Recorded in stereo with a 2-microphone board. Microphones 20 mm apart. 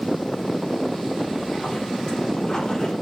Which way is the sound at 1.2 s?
45° left (ahead or behind).